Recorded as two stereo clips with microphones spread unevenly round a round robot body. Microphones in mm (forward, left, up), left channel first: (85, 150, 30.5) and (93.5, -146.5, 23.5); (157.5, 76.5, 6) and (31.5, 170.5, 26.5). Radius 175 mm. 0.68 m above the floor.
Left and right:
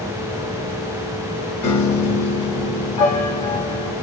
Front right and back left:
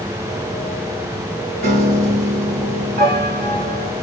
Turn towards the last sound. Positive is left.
turn(degrees=165)